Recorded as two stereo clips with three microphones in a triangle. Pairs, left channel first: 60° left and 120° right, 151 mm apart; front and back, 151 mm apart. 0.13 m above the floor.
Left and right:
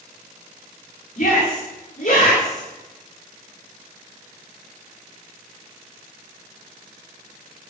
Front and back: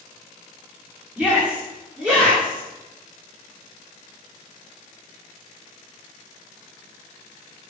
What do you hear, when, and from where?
1.2 s a shout: 100° left, 9.5 m